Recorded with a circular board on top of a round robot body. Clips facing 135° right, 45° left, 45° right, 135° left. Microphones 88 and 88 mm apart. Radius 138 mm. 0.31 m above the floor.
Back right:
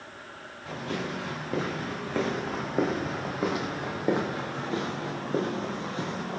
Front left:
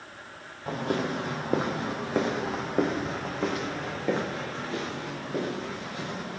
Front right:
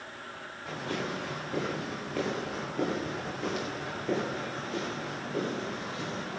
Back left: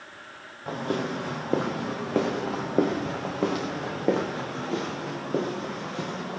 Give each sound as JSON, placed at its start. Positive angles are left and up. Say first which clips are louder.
{"t": 0.7, "sound": "footsteps", "louder": "front left 5 dB, back left 6 dB", "azimuth_deg": 90, "distance_m": 2.5}